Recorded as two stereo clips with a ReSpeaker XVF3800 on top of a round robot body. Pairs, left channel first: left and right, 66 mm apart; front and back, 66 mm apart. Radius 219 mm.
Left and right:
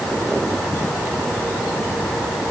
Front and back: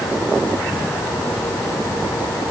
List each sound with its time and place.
Only background noise.